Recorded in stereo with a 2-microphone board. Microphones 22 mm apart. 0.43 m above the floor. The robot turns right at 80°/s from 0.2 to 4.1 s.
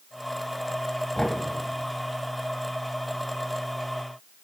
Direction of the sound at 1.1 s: 20° left (ahead or behind).